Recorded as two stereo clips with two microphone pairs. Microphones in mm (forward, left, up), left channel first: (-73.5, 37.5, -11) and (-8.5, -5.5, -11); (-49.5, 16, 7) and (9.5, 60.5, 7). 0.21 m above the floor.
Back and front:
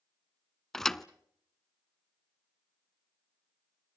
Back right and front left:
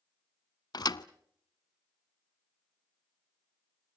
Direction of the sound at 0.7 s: 135° right.